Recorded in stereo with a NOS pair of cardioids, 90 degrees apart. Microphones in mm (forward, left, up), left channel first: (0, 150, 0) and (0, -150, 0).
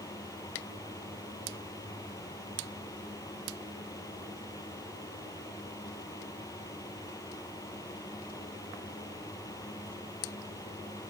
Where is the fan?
10° left.